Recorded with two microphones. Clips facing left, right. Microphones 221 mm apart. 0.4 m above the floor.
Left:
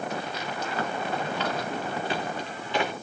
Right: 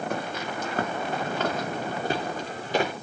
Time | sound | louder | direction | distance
0.1 | footsteps | right 2 dB | 55° right (ahead or behind) | 3.5 m